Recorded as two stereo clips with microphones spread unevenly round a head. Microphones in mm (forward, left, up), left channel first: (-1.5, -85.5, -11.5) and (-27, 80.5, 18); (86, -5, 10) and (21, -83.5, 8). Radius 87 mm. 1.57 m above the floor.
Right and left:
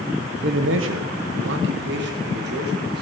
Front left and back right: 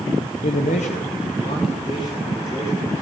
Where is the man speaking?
60° left, 0.7 m; by 3.0 s 125° left, 2.5 m.